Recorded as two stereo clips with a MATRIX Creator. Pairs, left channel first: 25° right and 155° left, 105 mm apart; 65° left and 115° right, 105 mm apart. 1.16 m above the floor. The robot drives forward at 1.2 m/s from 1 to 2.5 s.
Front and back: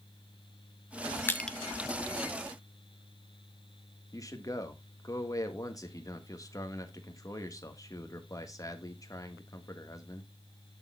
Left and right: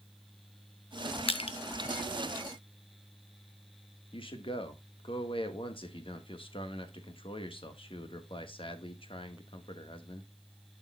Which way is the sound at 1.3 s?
45° left.